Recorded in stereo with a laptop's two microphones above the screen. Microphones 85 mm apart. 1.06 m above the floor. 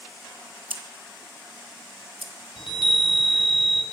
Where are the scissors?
80° right, 1.2 m.